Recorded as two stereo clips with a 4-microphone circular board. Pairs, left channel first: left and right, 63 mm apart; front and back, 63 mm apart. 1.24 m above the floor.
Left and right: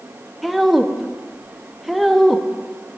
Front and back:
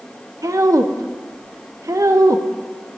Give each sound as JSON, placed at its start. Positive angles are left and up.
{"t": 0.4, "sound": "a woman speaking", "azimuth_deg": 180, "distance_m": 0.7}